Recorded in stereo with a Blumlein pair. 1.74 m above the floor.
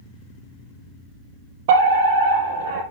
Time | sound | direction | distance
1.7 | a fire alarm | 55° right | 3.5 m